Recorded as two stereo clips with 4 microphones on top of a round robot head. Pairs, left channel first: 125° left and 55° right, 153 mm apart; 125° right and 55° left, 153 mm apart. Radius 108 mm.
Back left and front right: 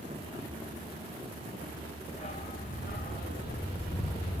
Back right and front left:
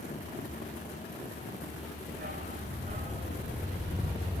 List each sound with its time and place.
2.1 s a dog barking: 80° left, 1.9 m; by 4.4 s 115° left, 2.5 m